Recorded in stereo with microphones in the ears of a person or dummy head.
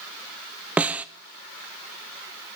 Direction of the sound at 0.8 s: 5° right (ahead or behind).